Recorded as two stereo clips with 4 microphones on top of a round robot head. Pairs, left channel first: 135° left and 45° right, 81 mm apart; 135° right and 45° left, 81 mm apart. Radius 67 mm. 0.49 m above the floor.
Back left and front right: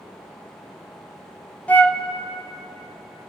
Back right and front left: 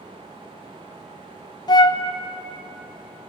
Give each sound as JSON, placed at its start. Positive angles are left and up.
{"t": 1.7, "sound": "a flute", "azimuth_deg": -155, "distance_m": 1.1}